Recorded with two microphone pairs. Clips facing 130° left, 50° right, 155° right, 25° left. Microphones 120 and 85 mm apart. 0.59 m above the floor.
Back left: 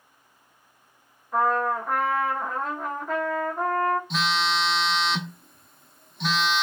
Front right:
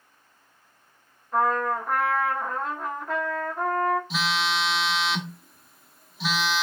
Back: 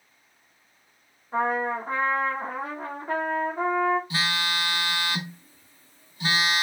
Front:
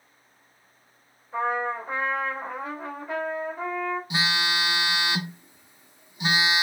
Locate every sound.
1.3 s a trumpet: 145° right, 1.0 m
4.1 s a phone buzzing: 35° left, 0.6 m